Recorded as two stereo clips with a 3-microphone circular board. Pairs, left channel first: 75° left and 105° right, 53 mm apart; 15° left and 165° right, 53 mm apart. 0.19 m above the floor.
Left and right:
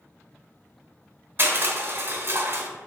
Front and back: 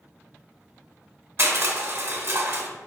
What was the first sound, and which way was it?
Crushing, 140° right.